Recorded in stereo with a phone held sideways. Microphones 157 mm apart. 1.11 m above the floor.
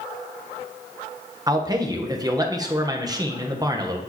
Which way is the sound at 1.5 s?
25° right (ahead or behind).